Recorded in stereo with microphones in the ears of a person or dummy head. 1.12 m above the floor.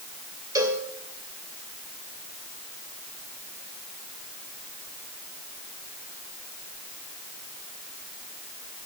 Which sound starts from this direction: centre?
A cowbell, at 0.6 s.